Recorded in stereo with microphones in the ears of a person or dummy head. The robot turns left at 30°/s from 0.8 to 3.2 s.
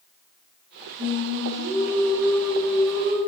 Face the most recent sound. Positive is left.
turn(degrees=155)